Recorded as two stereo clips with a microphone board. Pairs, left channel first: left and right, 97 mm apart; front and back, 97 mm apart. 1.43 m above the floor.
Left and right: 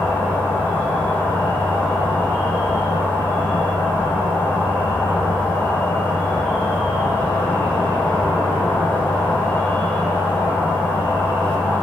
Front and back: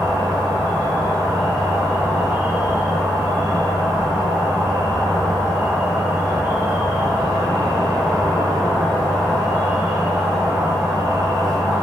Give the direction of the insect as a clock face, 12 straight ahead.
9 o'clock.